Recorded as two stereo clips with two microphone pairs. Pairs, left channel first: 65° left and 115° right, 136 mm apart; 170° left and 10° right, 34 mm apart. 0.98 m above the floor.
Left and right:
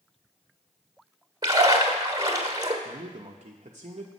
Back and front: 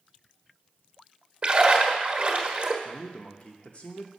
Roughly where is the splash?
Ahead right.